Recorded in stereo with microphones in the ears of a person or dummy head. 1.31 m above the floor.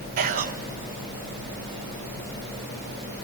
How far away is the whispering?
About 1.0 m.